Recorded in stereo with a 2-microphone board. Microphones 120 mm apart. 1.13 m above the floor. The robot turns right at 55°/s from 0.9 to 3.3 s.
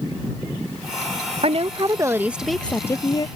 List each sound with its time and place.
1.4 s a woman speaking: 60° right; by 3.3 s 40° left